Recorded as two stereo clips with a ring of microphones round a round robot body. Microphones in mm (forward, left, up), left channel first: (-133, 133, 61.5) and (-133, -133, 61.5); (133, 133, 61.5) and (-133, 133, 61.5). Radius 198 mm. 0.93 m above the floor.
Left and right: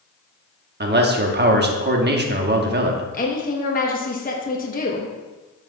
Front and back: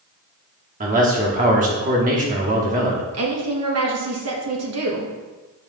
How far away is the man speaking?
About 1.1 m.